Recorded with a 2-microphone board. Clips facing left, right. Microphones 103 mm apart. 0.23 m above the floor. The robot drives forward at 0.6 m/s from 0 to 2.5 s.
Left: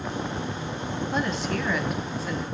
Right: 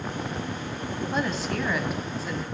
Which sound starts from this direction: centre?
A woman speaking, at 1.1 s.